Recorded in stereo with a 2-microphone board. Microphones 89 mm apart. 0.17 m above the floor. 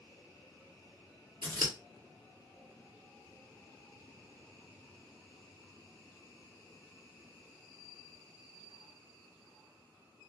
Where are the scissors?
50° right (ahead or behind), 1.7 m.